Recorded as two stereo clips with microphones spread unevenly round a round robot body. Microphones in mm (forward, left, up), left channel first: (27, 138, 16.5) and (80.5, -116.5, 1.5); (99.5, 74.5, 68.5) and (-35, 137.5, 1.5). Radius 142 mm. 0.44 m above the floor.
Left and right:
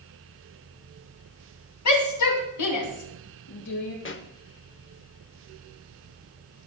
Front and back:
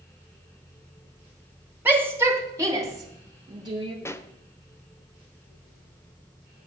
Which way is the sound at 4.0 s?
65° left.